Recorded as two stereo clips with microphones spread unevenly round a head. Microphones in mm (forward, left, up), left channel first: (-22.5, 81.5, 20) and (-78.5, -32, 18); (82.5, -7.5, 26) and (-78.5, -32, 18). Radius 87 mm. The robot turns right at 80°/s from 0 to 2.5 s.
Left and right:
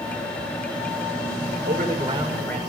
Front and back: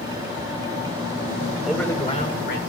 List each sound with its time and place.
1.6 s a man speaking: 85° right, 6.5 m; by 2.6 s 15° right, 6.5 m